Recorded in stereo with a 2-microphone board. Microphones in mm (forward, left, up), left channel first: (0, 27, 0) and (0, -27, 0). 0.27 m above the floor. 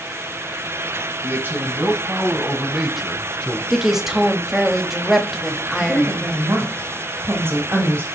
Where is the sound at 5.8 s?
45° right (ahead or behind), 1.9 m.